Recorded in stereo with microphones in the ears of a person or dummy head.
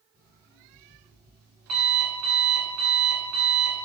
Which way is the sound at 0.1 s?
5° right (ahead or behind).